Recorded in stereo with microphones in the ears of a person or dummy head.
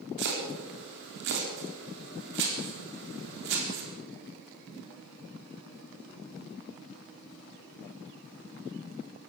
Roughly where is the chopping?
Right.